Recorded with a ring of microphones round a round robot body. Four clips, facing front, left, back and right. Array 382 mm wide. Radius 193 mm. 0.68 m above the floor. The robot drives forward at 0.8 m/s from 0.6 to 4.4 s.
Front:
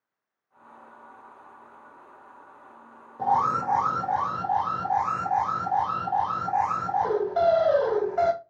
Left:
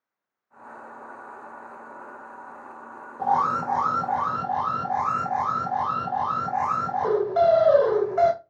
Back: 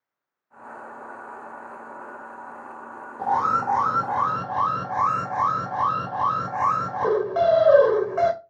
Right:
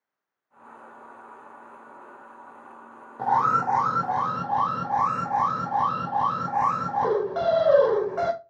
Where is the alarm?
105° right, 1.5 m; by 8.3 s 155° right, 1.9 m.